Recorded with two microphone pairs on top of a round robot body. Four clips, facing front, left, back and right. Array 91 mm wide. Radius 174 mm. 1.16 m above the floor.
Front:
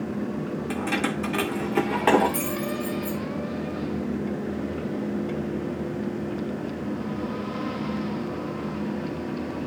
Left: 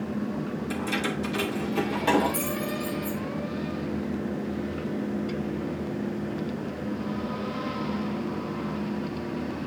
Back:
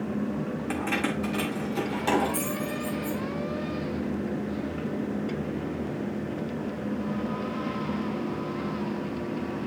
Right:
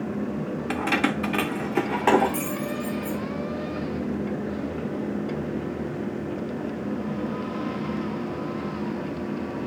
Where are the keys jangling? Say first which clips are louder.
Right 6 dB, front 2 dB; 95° right, 1.4 m; by 3.2 s 30° right, 4 m.